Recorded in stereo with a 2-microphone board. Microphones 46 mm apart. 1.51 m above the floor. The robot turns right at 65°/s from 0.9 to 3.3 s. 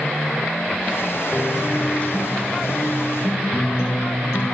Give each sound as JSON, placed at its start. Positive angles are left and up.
{"t": 1.3, "sound": "a guitar", "azimuth_deg": -15, "distance_m": 7.5}